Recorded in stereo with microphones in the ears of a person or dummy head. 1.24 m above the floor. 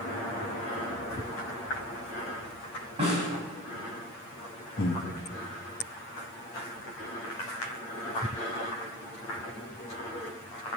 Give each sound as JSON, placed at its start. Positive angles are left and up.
{"t": 3.0, "sound": "a snare drum", "side_deg": -35, "distance_m": 6.5}
{"t": 4.8, "sound": "breathing", "side_deg": 40, "distance_m": 0.7}